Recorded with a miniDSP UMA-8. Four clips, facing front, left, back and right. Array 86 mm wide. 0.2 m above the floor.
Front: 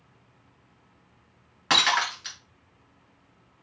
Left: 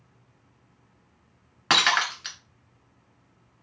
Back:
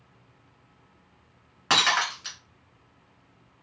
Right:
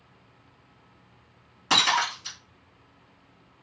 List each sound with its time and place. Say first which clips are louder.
1.7 s breaking glass: left 1 dB, even; 100° left, 1.6 m